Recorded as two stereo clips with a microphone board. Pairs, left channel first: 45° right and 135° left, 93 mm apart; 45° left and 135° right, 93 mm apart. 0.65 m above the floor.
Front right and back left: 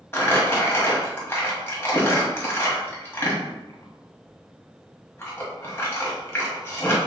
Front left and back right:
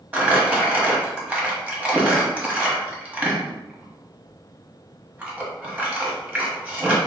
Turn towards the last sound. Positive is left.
turn(degrees=-75)